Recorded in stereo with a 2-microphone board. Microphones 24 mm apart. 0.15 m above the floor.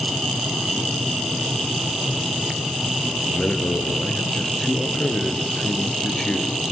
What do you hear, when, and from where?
3.3 s a man speaking: 30° left (ahead or behind), 3 m